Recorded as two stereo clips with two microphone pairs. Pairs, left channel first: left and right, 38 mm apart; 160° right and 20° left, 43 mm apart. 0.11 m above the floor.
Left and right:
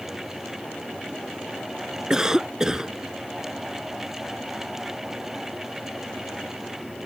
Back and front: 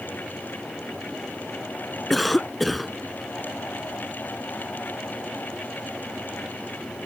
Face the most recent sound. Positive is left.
turn(degrees=-70)